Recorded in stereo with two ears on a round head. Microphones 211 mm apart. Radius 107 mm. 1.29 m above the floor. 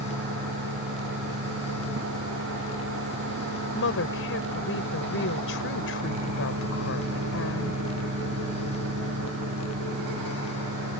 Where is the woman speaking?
60° left (ahead or behind).